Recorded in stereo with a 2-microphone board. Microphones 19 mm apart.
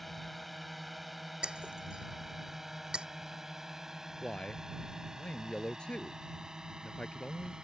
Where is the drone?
5° left (ahead or behind); by 7.6 s 45° right (ahead or behind).